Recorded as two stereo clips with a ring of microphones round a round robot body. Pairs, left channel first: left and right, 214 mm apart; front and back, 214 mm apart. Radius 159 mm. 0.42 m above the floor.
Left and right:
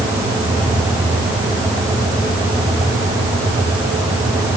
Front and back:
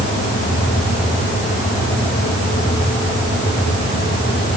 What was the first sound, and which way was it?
Only background noise.